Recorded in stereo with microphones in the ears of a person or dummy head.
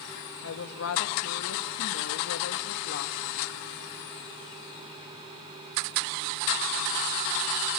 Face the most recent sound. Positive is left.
turn(degrees=85)